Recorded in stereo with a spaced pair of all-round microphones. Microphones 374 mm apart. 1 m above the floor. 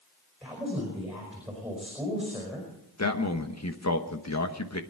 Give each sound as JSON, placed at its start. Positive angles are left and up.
{"t": 0.4, "sound": "a woman speaking", "side_deg": 0, "distance_m": 5.0}
{"t": 3.0, "sound": "a man speaking", "side_deg": 45, "distance_m": 1.2}